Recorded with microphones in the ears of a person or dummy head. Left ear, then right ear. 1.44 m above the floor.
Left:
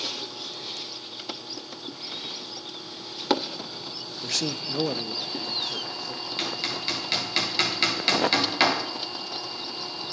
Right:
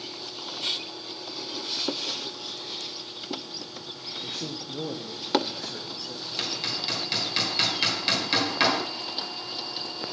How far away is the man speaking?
About 0.7 m.